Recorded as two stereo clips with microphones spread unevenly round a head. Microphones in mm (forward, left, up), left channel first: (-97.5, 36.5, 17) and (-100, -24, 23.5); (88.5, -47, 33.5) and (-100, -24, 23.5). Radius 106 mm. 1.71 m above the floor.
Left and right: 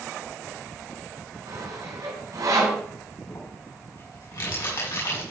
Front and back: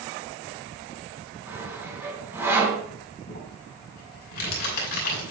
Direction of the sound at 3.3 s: 40° left.